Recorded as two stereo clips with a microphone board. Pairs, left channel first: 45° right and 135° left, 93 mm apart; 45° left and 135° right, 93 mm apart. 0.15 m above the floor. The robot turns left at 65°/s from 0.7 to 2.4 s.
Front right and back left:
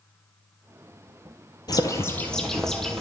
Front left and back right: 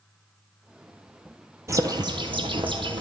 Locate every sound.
1.7 s a bird: 80° right, 1.3 m; by 3.0 s 130° right, 1.3 m